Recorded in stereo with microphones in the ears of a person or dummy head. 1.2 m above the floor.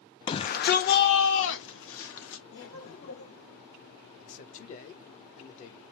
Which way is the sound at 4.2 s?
45° left (ahead or behind).